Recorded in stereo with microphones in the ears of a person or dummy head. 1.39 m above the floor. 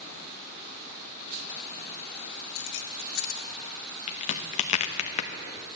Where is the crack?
40° left (ahead or behind), 0.9 m.